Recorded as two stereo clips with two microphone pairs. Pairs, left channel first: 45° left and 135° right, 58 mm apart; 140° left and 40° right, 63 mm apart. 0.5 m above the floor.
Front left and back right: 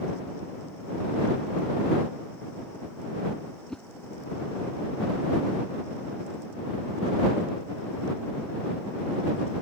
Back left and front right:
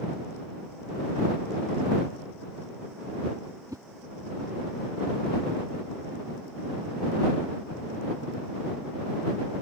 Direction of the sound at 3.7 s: 30° right.